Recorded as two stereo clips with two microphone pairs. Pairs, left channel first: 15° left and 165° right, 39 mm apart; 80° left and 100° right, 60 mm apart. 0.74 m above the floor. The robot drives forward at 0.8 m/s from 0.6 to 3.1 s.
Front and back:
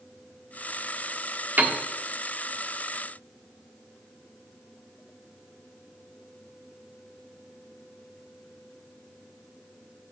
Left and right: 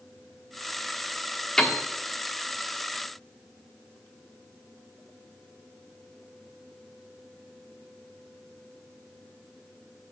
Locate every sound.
1.6 s a piano: 155° left, 1.2 m; by 1.8 s 160° left, 1.4 m